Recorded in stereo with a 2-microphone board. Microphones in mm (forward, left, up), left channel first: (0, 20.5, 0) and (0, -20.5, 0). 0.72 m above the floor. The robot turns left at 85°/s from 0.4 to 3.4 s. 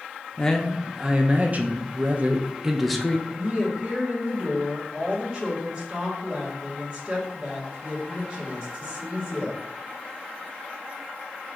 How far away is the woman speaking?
About 1.7 m.